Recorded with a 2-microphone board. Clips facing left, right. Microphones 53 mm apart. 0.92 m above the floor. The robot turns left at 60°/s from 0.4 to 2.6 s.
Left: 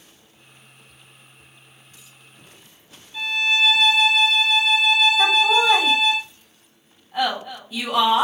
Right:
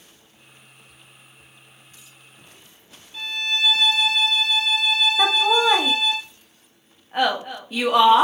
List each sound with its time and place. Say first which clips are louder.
3.1 s a violin: left 5 dB; centre (ahead or behind), 1.8 m
5.2 s laughter: left 1 dB; 45° right (ahead or behind), 1.2 m